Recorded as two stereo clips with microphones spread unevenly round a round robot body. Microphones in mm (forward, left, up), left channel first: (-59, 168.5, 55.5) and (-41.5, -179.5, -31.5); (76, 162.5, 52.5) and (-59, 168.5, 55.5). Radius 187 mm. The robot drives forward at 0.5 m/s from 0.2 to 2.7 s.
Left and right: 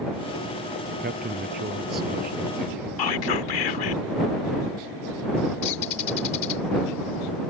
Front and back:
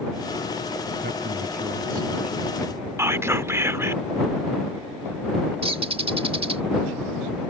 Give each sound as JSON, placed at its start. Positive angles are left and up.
{"t": 1.0, "sound": "a man speaking", "azimuth_deg": -150}
{"t": 3.0, "sound": "whispering", "azimuth_deg": 110}
{"t": 5.6, "sound": "a bird", "azimuth_deg": 130}